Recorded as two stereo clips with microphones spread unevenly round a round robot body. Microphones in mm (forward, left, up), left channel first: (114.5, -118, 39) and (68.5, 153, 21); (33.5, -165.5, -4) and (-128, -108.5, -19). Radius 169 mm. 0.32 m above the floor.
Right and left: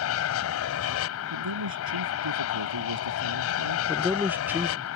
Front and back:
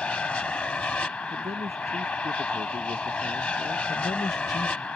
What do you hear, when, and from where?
0.0 s an aircraft: 100° right
1.3 s a man speaking: 90° left
3.9 s a man speaking: 35° left